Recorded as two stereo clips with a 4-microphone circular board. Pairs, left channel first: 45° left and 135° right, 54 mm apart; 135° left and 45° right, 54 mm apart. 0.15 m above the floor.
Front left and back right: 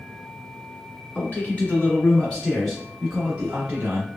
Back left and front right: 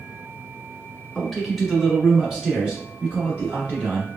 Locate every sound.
1.1 s a man speaking: 45° left, 1.7 m; by 4.1 s 95° right, 1.6 m